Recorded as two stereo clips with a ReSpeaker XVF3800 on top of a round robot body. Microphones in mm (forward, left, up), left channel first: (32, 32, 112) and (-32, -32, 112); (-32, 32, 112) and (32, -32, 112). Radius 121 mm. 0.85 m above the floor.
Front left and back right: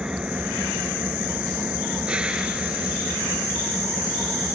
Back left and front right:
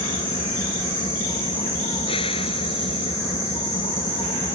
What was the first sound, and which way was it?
An engine running, 145° left.